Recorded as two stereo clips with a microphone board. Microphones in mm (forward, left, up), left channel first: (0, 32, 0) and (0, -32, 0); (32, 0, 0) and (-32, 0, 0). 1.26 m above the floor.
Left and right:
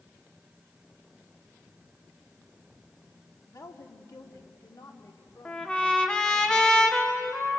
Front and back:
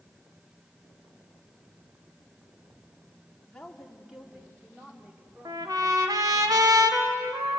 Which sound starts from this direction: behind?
A trumpet, at 5.5 s.